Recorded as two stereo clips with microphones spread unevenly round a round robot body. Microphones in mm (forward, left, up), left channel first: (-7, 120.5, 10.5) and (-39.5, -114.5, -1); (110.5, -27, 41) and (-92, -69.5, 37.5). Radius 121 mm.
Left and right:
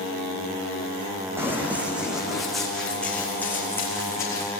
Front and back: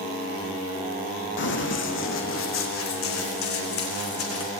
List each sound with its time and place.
1.4 s running footsteps: 15° right, 3 m; by 4.5 s 5° left, 4.5 m